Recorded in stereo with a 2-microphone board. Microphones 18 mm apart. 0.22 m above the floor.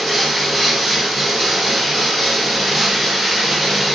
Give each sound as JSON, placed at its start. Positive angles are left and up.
{"t": 0.0, "sound": "running water", "side_deg": -10, "distance_m": 1.6}